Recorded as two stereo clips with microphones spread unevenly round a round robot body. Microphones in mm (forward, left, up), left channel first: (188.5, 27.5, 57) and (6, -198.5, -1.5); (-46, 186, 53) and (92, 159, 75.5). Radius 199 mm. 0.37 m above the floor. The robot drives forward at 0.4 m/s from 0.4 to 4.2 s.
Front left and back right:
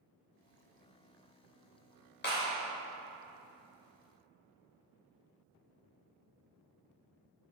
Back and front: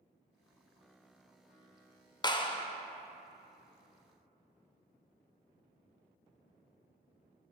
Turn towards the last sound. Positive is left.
turn(degrees=150)